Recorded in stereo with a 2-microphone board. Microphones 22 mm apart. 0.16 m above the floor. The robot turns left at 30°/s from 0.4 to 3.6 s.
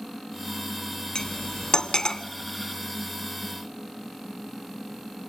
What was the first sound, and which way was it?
Cutlery clinking, 40° left (ahead or behind).